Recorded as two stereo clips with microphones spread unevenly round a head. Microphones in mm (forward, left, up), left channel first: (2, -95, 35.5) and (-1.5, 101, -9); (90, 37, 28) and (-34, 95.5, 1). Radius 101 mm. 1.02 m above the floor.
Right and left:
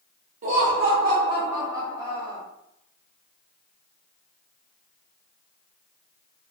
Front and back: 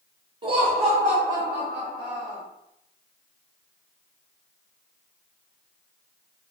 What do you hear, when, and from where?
0.4 s laughter: 115° left, 0.5 m; by 2.4 s 170° left, 1.4 m